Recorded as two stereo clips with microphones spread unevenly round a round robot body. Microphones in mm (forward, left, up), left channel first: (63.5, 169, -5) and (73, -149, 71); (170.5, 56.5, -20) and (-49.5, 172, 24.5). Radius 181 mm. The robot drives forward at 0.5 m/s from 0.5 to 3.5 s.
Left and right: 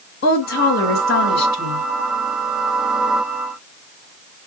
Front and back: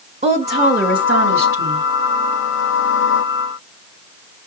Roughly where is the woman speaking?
Left.